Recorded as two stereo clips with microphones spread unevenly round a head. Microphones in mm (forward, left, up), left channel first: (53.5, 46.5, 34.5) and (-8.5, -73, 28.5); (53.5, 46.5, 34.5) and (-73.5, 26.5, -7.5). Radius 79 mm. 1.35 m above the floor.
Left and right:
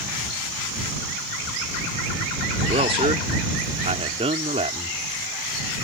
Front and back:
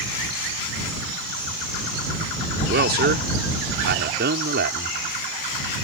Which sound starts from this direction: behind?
A man speaking, at 2.7 s.